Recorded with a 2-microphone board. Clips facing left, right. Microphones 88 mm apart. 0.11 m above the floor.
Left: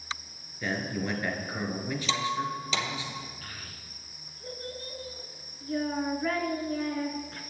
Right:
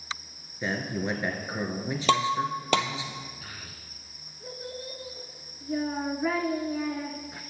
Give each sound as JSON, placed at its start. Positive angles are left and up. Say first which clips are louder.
{"t": 0.6, "sound": "a man speaking", "louder": "right 1 dB", "side_deg": -20, "distance_m": 1.5}
{"t": 2.1, "sound": "breaking glass", "louder": "right 7 dB", "side_deg": -65, "distance_m": 0.8}
{"t": 3.4, "sound": "a child speaking", "louder": "even", "side_deg": -10, "distance_m": 0.8}